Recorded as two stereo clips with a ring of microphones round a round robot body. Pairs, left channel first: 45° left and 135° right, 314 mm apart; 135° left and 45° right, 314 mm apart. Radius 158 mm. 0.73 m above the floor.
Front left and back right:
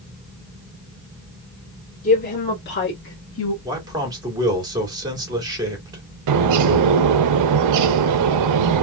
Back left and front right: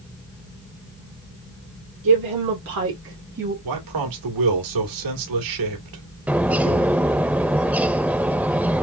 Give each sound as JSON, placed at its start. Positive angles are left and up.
{"t": 2.0, "sound": "a woman speaking", "azimuth_deg": -15, "distance_m": 2.5}
{"t": 3.6, "sound": "a man speaking", "azimuth_deg": -60, "distance_m": 2.0}
{"t": 6.3, "sound": "a bird", "azimuth_deg": -130, "distance_m": 0.6}